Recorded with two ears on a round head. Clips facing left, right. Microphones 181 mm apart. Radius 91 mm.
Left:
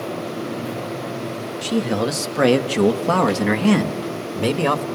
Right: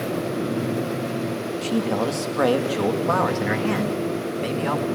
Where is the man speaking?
20° left (ahead or behind), 2.0 m; by 4.8 s 70° left (ahead or behind), 2 m.